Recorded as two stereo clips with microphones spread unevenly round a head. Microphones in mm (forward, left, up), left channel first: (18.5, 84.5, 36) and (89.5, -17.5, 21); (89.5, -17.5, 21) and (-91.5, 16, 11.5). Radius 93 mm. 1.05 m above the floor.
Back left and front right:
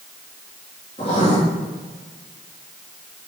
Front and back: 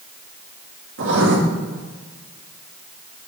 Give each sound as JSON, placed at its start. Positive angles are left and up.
{"t": 1.0, "sound": "writing", "azimuth_deg": -175, "distance_m": 2.5}